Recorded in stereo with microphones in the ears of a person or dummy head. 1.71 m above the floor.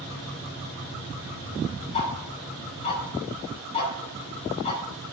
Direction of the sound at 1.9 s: 35° left (ahead or behind).